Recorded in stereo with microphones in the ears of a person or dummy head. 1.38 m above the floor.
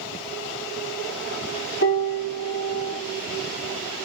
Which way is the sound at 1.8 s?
60° left (ahead or behind).